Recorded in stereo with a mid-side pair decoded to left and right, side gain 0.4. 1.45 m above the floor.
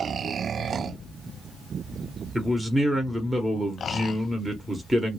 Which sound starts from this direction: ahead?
A man speaking, at 2.4 s.